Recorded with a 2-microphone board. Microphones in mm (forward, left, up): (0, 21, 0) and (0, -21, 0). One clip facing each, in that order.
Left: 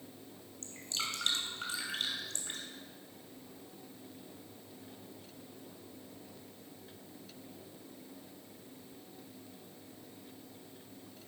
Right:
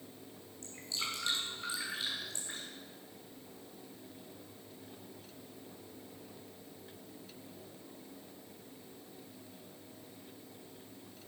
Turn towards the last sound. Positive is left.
turn(degrees=60)  # may be behind; listen again after turning